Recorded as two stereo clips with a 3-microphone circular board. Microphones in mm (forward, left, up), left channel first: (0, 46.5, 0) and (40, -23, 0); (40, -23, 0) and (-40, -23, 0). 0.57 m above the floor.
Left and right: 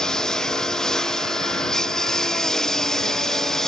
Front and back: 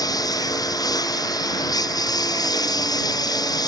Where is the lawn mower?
40° left; by 3.7 s 35° left.